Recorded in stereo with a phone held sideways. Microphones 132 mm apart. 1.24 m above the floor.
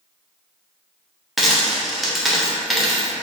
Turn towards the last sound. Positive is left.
turn(degrees=0)  # may be behind; listen again after turning